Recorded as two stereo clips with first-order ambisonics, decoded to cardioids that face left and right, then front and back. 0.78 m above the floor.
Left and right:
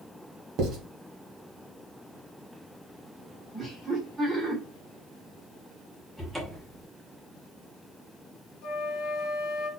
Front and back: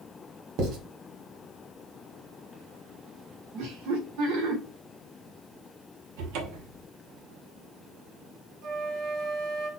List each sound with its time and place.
0.6 s writing: 140° right, 1.3 m
3.5 s laughter: 175° right, 1.9 m
6.2 s a cupboard door: 175° right, 1.0 m
8.6 s a flute: 135° left, 1.4 m